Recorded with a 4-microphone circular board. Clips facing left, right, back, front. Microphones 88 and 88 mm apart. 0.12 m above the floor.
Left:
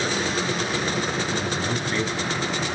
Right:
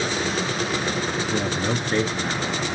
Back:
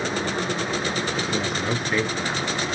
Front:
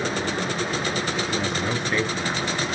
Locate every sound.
1.3 s a man speaking: 100° right, 1.2 m